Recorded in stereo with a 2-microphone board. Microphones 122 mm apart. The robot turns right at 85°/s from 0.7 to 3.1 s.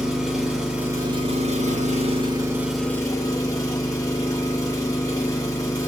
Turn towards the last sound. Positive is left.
turn(degrees=30)